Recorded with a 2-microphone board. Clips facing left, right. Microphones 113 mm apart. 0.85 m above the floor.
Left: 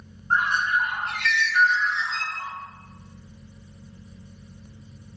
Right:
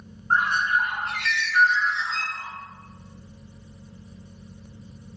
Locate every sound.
0.3 s a bird: 35° right (ahead or behind), 2 m